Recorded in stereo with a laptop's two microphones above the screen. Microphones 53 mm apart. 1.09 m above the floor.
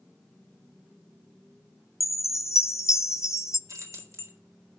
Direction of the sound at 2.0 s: 70° left (ahead or behind).